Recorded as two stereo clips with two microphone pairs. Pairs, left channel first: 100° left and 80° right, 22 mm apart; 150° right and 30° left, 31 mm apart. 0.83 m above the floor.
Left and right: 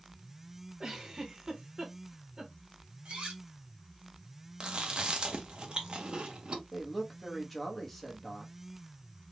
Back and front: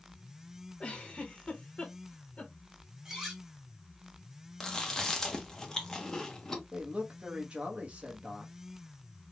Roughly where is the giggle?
Behind right.